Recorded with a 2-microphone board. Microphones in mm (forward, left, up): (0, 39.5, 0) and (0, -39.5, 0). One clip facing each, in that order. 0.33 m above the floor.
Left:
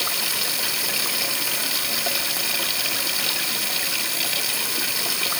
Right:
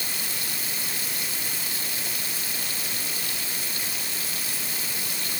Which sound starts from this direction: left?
Running water, at 0.0 s.